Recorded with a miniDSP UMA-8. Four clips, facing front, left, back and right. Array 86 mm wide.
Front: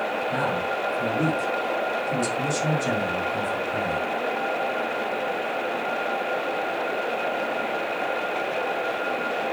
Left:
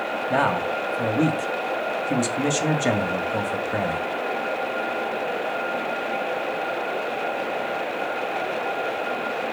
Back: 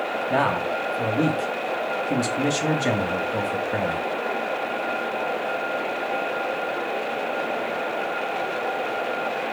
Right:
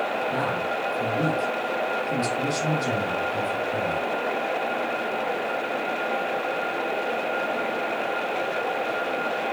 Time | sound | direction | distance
0.3 | a man speaking | 130° left | 2.5 m